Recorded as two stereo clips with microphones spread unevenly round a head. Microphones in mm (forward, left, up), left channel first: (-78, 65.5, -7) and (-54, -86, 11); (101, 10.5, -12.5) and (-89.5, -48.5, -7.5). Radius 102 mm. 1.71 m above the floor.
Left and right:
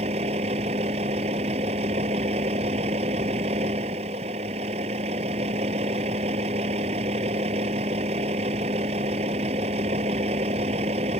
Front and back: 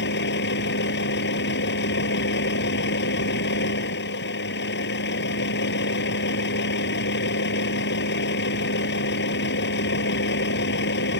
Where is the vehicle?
20° right.